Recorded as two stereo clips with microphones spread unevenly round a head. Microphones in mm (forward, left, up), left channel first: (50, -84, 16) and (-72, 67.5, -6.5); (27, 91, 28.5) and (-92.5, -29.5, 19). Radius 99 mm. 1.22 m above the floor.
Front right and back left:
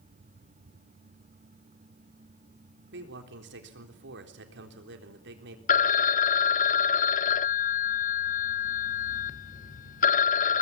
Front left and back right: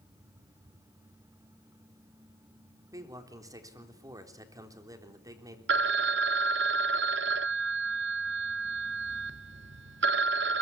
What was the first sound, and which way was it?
A man speaking, 155° left.